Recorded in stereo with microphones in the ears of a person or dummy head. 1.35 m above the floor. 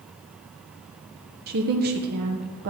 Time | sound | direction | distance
1.5 | a woman speaking | 50° right (ahead or behind) | 0.8 m